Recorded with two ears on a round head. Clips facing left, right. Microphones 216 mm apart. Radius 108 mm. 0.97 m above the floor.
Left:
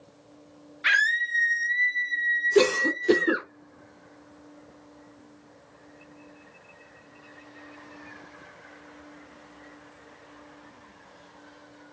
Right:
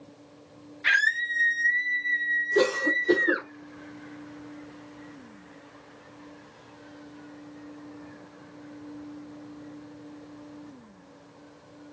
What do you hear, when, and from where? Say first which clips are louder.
0.8 s a scream: left 3 dB; 15° left (ahead or behind), 0.8 m; by 3.5 s 25° left (ahead or behind), 1.8 m
2.5 s a cough: left 3 dB; 40° left (ahead or behind), 0.6 m